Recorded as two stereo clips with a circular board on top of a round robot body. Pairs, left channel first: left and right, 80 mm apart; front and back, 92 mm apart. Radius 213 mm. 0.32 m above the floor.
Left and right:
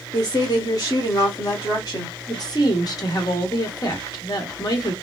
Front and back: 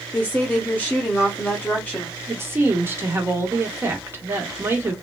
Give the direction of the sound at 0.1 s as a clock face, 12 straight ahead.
10 o'clock.